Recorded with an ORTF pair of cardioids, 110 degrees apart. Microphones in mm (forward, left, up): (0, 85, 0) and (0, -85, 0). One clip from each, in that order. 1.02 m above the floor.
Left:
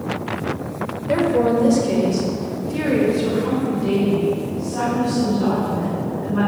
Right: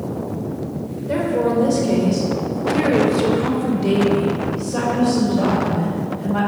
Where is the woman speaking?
15° left, 3 m; by 6.5 s 70° right, 5 m.